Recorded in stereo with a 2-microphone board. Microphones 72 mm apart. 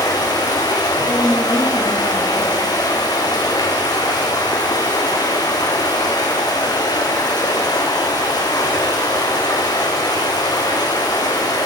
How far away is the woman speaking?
About 3.5 m.